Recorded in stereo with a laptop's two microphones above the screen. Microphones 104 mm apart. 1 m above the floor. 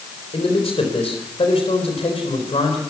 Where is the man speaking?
80° left, 4 m.